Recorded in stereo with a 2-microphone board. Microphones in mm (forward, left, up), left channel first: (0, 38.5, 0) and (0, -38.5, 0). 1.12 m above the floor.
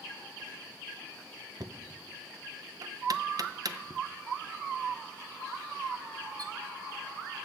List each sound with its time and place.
1.6 s knocking: 50° right (ahead or behind), 0.5 m